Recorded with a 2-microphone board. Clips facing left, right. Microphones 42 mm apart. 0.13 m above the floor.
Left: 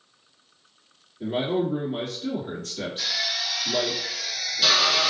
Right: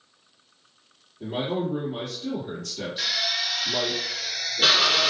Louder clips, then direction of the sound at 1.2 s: Left 3 dB; 40° left (ahead or behind).